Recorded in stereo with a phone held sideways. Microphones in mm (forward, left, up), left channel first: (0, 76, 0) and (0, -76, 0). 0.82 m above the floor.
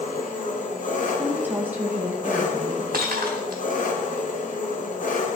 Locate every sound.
0.0 s an engine running: 60° left (ahead or behind), 0.9 m
1.2 s a woman speaking: 15° right (ahead or behind), 0.9 m
2.9 s breaking glass: 75° right (ahead or behind), 0.9 m